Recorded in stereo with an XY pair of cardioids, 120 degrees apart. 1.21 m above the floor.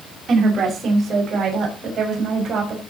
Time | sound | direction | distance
0.3 | a woman speaking | 35° right | 5.5 m